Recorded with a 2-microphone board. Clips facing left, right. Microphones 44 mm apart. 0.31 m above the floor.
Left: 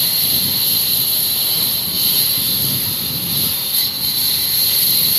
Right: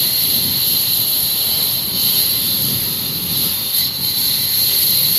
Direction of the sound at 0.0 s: 5° left (ahead or behind).